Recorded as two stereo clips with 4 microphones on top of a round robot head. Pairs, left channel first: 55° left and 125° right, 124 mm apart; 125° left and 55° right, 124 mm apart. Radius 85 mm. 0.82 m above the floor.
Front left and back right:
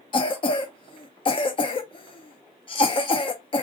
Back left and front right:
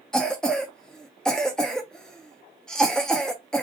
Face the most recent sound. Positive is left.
turn(degrees=45)